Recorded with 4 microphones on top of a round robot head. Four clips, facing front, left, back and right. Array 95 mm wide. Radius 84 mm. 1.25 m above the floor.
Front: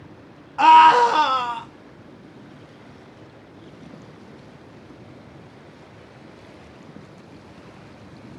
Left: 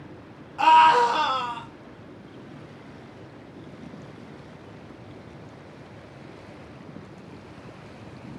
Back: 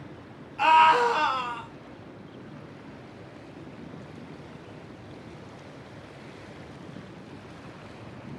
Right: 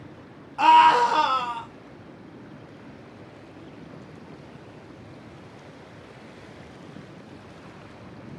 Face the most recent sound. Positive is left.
turn(degrees=-15)